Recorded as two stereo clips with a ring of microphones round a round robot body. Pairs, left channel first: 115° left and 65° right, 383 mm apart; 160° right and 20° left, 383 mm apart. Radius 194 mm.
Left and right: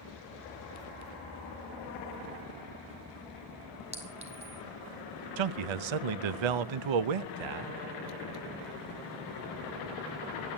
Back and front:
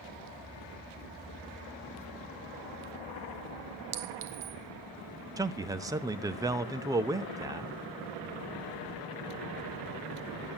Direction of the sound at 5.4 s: 60° right.